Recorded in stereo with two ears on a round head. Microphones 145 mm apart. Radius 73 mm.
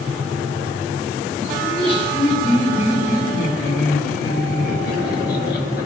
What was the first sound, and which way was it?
Laughter, 35° left (ahead or behind).